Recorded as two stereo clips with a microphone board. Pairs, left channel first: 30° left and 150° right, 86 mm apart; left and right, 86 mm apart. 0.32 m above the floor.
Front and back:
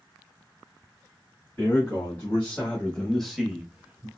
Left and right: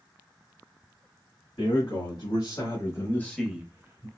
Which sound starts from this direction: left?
A man speaking, at 1.6 s.